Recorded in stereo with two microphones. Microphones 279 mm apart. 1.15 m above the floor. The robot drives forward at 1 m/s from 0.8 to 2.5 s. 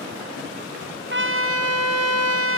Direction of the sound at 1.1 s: 40° right (ahead or behind).